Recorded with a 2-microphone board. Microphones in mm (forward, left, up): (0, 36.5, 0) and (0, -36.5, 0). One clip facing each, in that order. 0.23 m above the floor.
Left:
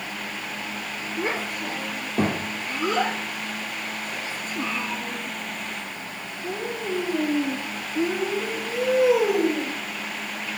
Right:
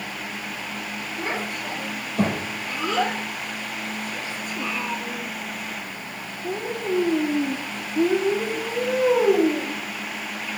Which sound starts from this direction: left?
A child speaking, at 1.2 s.